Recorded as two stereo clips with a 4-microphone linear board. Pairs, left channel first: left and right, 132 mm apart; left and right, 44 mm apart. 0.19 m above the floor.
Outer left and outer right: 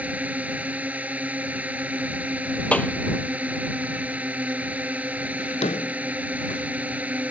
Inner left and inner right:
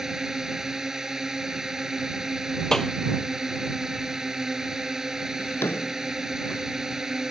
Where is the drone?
10° right (ahead or behind).